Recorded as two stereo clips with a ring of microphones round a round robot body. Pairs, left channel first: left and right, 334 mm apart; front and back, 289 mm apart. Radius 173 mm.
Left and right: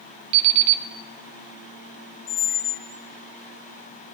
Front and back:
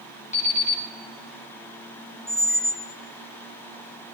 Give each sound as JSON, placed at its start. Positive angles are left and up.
{"t": 0.3, "sound": "an alarm clock", "azimuth_deg": -70, "distance_m": 1.1}
{"t": 2.3, "sound": "a squeak", "azimuth_deg": 90, "distance_m": 1.0}